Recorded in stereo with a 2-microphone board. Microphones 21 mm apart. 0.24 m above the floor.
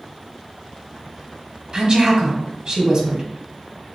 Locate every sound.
1.7 s a woman speaking: 35° right (ahead or behind), 1.1 m